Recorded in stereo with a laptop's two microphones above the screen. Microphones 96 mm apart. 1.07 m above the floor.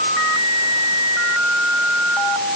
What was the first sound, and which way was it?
Only background noise.